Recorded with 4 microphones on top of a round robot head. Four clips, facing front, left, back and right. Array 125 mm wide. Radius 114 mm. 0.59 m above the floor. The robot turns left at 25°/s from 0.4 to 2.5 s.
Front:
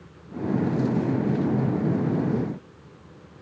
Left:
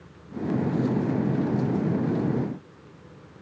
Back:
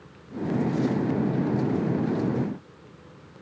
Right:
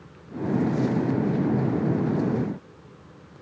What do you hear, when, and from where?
Only background noise.